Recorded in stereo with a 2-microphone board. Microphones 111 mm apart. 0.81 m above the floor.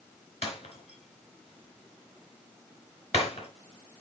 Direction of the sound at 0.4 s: 70° left (ahead or behind).